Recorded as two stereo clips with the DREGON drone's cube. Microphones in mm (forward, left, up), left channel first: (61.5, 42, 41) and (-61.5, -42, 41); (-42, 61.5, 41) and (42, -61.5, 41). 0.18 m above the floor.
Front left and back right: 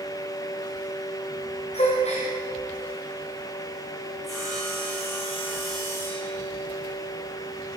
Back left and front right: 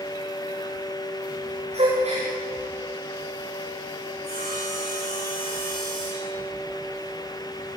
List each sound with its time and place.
1.7 s a gasp: 10° right, 6.5 m
4.2 s sawing: 125° left, 8.5 m